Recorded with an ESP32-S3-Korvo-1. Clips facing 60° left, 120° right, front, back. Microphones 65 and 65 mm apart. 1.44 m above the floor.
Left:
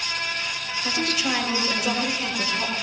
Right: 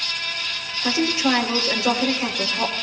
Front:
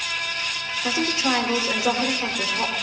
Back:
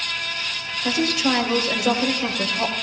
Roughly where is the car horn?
I don't hear a car horn.